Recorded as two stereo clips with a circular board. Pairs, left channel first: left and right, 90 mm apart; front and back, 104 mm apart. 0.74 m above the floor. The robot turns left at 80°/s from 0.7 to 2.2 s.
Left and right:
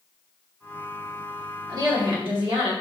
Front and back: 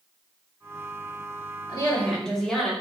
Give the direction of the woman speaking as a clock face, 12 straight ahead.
1 o'clock.